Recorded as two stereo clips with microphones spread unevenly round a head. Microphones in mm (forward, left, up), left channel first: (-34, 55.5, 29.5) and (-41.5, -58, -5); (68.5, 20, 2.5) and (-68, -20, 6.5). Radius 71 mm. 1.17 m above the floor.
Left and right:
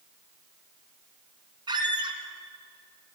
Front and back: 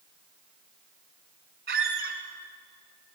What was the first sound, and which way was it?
A squeak, 150° right.